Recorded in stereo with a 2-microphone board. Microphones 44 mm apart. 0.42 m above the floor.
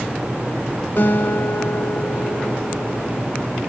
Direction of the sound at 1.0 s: 55° left (ahead or behind).